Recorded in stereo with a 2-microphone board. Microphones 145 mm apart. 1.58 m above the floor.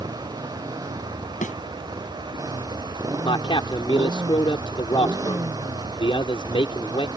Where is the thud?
65° left (ahead or behind).